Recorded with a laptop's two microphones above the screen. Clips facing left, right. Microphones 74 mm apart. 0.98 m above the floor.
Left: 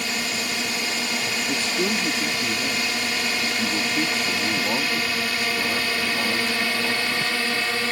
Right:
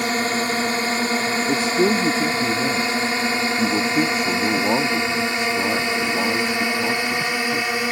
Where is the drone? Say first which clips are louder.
Right 7 dB; 40° right (ahead or behind); by 7.9 s 15° right (ahead or behind).